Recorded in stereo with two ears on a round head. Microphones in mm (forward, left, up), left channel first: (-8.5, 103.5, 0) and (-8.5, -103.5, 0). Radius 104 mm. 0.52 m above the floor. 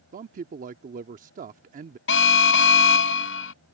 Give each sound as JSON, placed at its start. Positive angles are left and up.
{"t": 0.1, "sound": "a man speaking", "side_deg": -35}
{"t": 2.1, "sound": "an alarm", "side_deg": 50}